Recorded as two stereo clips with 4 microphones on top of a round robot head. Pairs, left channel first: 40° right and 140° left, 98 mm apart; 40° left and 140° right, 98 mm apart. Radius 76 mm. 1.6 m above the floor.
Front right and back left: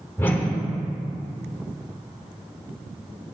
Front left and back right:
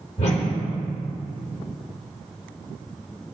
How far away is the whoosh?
About 1.1 m.